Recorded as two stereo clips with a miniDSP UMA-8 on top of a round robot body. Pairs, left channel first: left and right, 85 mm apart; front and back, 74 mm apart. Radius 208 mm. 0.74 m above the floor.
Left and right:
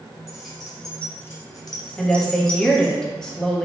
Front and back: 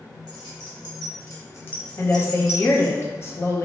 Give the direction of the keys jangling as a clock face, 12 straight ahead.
12 o'clock.